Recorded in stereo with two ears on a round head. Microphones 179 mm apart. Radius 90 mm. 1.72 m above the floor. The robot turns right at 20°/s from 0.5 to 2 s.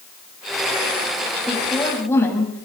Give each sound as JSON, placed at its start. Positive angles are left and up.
{"t": 1.5, "sound": "a woman speaking", "side_deg": 0, "distance_m": 9.0}